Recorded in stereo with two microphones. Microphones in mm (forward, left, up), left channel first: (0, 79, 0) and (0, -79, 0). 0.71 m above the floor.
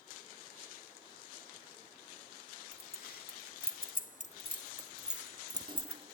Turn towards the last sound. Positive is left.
turn(degrees=-40)  # may be behind; listen again after turning